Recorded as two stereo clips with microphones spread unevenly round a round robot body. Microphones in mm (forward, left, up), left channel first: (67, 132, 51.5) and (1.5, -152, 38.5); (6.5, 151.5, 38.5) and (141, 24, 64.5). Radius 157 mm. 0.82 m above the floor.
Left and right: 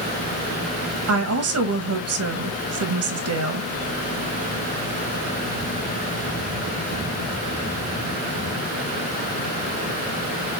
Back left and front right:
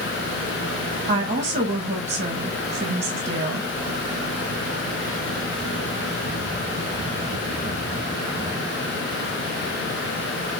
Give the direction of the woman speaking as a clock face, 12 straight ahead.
3 o'clock.